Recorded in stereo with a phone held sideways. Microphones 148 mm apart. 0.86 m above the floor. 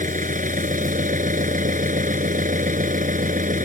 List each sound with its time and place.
0.0 s an engine running: 65° right (ahead or behind)